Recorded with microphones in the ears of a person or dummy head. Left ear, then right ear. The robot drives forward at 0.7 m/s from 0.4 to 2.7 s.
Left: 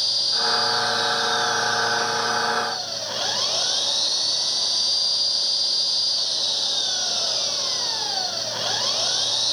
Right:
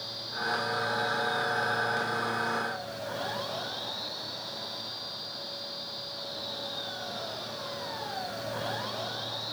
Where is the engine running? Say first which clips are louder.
Left 13 dB; 70° left (ahead or behind).